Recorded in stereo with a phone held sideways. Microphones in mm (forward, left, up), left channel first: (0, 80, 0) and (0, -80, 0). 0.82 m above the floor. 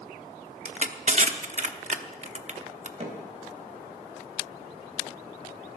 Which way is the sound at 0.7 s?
50° right (ahead or behind).